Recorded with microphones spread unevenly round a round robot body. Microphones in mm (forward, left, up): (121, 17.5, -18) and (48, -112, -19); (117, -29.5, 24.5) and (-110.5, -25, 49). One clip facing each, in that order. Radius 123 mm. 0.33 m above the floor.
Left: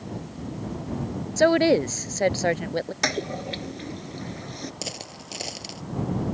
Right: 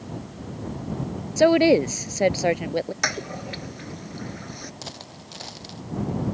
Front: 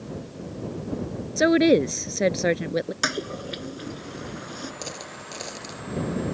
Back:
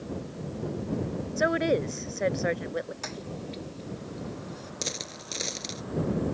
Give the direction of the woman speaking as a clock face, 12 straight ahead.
1 o'clock.